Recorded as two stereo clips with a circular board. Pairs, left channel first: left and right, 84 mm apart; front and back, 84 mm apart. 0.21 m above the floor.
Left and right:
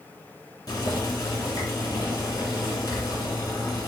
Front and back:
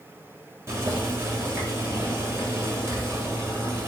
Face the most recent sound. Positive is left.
turn(degrees=130)